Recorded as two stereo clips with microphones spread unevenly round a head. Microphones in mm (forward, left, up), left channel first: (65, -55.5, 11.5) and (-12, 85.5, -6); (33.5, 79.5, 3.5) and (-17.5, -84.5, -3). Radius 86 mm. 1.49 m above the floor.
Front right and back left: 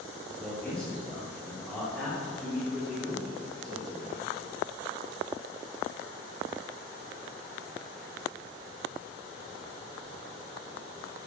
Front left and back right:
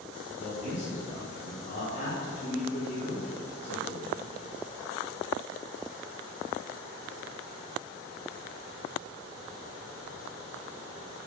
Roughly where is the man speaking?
Ahead.